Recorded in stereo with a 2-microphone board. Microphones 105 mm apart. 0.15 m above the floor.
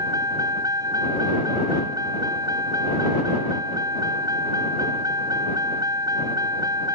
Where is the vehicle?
35° right (ahead or behind).